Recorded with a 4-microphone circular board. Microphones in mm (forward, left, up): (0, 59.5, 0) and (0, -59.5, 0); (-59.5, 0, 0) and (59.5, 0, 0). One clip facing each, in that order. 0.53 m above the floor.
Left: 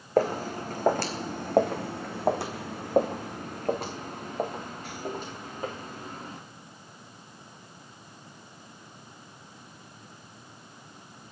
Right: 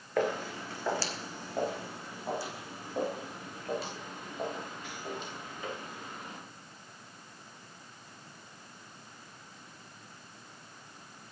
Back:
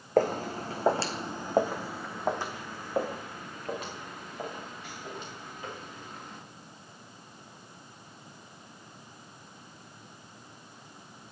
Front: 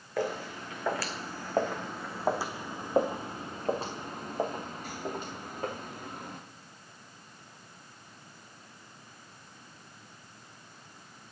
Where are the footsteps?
140° left, 1.5 m; by 6.4 s 35° left, 3.5 m.